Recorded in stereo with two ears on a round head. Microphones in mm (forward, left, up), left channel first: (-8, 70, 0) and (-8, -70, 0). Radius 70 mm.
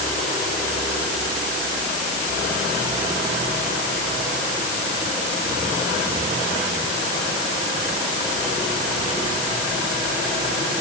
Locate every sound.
Only background noise.